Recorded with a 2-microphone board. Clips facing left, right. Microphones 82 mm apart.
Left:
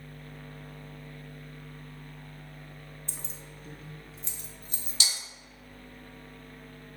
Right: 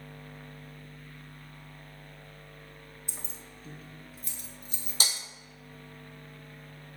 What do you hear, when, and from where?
3.1 s keys jangling: 10° right (ahead or behind), 0.8 m; by 4.9 s 45° left (ahead or behind), 1.1 m
5.0 s breaking glass: 45° right (ahead or behind), 0.7 m